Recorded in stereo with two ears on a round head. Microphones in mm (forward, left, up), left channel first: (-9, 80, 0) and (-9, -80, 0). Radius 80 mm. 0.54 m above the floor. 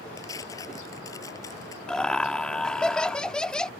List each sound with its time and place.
0.2 s tearing paper: 20° left (ahead or behind)
1.9 s laughter: 5° left (ahead or behind)